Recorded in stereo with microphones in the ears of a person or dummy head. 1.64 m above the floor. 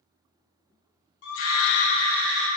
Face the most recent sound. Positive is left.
turn(degrees=-5)  # may be behind; listen again after turning